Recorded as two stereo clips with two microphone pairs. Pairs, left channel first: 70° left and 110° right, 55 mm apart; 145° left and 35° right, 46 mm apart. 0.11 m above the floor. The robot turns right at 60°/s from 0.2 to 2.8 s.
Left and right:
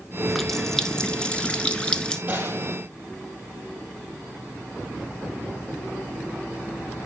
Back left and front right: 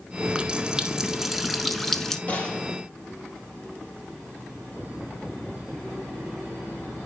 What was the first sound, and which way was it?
A running tap, 15° right.